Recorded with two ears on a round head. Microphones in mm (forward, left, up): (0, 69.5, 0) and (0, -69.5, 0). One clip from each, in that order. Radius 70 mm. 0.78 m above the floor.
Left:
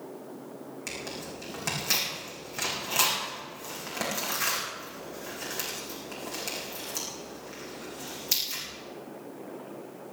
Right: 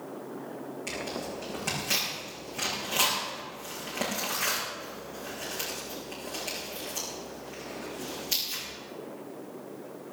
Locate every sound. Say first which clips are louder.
0.9 s tearing paper: right 2 dB; 35° left (ahead or behind), 7.5 m